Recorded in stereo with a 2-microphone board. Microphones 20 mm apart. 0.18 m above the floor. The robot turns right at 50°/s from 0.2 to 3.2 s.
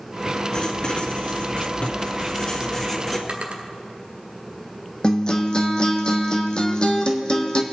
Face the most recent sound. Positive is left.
turn(degrees=45)  # may be behind; listen again after turning